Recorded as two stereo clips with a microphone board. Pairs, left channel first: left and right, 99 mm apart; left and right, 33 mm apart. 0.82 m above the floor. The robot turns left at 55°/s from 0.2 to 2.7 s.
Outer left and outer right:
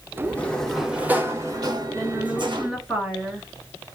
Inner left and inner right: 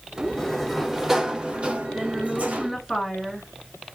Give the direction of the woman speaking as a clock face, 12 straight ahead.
4 o'clock.